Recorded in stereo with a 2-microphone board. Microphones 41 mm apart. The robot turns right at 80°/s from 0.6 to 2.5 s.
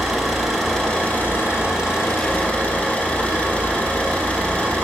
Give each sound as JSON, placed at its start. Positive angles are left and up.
{"t": 0.0, "sound": "an engine running", "azimuth_deg": 0, "distance_m": 4.0}